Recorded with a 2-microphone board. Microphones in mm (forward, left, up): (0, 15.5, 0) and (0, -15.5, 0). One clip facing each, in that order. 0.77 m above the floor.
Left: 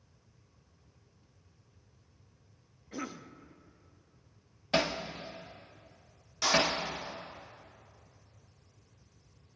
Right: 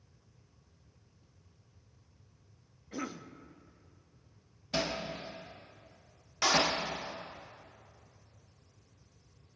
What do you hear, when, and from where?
2.9 s a cough: centre (ahead or behind), 0.7 m
4.7 s hammering: 55° left (ahead or behind), 1.1 m
6.4 s a clap: 30° right (ahead or behind), 1.3 m